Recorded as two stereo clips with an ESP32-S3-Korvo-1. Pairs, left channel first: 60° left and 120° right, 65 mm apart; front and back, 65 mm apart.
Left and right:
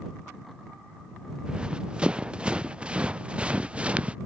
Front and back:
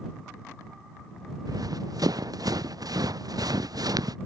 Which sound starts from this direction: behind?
Running footsteps, at 1.5 s.